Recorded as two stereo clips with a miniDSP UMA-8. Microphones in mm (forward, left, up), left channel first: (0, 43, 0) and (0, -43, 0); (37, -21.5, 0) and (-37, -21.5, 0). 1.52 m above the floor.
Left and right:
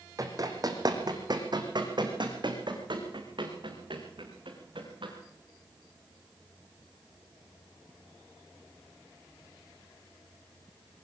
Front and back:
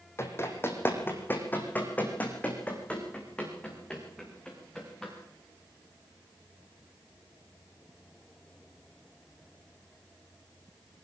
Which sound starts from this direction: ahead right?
Running footsteps, at 0.2 s.